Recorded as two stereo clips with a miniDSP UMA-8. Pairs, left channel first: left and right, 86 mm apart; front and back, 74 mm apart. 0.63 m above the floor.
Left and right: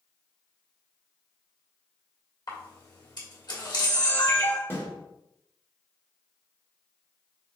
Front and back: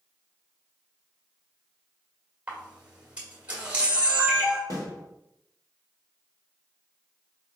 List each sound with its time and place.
2.5 s a camera shutter: 105° left, 2.0 m
4.7 s a snare drum: 30° left, 1.6 m